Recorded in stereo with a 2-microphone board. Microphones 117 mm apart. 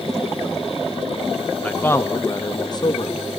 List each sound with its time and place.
1.6 s a man speaking: 10° left (ahead or behind), 0.8 m; by 3.2 s 40° left (ahead or behind), 1.7 m